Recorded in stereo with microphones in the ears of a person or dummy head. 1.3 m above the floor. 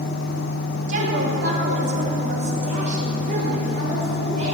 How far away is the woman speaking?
About 2.5 m.